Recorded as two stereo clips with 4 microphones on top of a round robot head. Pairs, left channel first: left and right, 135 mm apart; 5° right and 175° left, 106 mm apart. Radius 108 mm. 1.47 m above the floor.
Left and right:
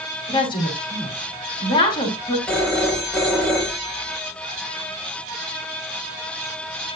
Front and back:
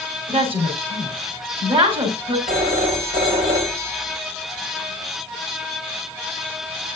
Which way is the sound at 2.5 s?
175° left.